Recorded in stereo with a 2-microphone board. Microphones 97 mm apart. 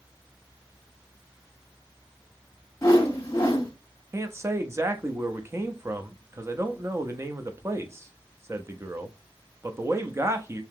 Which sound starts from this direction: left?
A whoosh, at 2.8 s.